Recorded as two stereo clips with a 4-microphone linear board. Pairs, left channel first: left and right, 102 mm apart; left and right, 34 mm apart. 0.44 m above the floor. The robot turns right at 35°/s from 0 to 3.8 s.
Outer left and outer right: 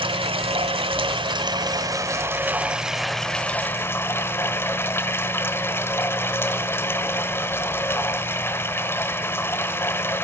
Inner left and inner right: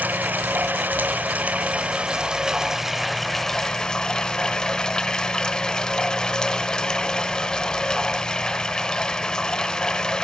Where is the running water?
110° right, 0.9 m; by 10.2 s 25° left, 0.9 m.